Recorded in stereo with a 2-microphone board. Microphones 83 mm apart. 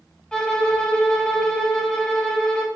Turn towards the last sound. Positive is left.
turn(degrees=10)  # may be behind; listen again after turning